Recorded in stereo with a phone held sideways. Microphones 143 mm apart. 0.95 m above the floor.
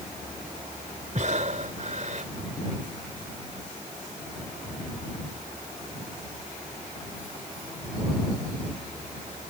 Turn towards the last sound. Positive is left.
turn(degrees=-60)  # may be behind; listen again after turning